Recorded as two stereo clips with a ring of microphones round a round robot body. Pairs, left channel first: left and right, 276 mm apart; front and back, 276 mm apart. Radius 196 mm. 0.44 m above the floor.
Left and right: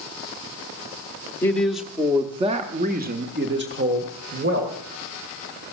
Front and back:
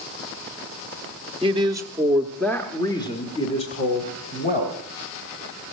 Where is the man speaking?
155° left, 1.0 m; by 4.8 s 55° right, 1.8 m.